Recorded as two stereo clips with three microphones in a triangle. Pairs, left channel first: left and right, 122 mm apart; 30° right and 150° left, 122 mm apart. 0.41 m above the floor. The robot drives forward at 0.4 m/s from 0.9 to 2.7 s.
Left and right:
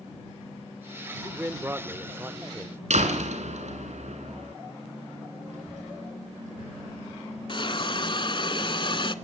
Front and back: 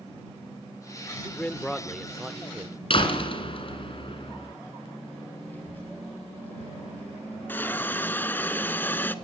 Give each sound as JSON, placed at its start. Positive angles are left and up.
{"t": 1.2, "sound": "a man speaking", "azimuth_deg": -60, "distance_m": 0.8}
{"t": 2.9, "sound": "a door slam", "azimuth_deg": -75, "distance_m": 3.0}
{"t": 5.5, "sound": "a child speaking", "azimuth_deg": -105, "distance_m": 7.5}
{"t": 7.5, "sound": "a hiss", "azimuth_deg": 45, "distance_m": 0.8}